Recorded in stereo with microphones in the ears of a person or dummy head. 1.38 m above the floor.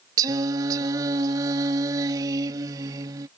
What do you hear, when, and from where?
0.2 s singing: 25° right (ahead or behind)